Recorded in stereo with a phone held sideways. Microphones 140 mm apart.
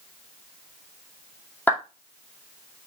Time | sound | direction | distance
1.7 | a clap | 15° left (ahead or behind) | 2.5 m